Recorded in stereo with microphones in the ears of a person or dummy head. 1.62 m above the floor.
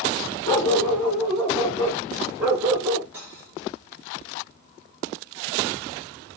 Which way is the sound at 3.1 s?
20° right (ahead or behind).